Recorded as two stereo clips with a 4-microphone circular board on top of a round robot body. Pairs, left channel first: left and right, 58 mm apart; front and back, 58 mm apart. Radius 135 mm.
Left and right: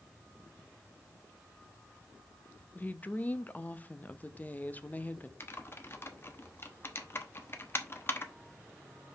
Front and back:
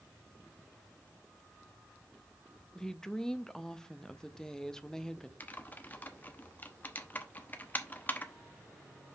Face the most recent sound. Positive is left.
turn(degrees=50)